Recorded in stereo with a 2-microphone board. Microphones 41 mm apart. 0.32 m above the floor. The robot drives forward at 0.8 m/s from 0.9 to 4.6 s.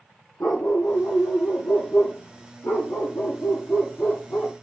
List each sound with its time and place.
0.4 s a dog barking: 85° left, 4 m; by 4.5 s 50° left (ahead or behind), 5.5 m